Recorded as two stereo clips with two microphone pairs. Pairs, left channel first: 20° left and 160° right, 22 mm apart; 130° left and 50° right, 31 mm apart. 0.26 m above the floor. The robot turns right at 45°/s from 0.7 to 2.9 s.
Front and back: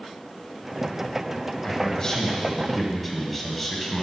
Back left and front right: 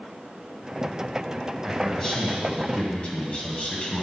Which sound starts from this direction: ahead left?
A man speaking, at 1.6 s.